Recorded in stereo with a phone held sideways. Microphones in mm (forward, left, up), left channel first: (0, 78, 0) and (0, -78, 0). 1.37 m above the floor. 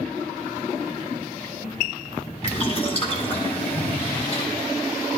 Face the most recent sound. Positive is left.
turn(degrees=40)  # may be behind; listen again after turning